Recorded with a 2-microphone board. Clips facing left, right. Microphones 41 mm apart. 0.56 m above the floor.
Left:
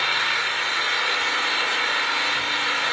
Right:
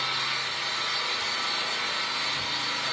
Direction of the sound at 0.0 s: 60° left (ahead or behind).